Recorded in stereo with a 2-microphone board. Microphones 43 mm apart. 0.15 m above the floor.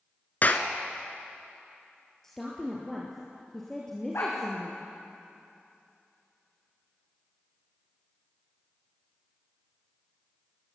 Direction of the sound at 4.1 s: 75° left (ahead or behind).